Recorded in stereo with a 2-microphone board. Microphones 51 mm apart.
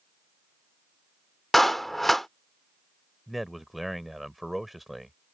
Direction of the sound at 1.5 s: 5° left (ahead or behind).